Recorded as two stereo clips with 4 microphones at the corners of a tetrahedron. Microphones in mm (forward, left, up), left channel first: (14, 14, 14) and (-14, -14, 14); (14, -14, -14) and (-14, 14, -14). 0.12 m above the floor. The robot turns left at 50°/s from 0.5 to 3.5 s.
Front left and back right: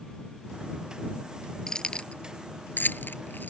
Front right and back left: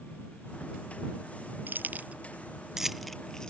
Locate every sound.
1.7 s keys jangling: 115° left; by 3.5 s 25° left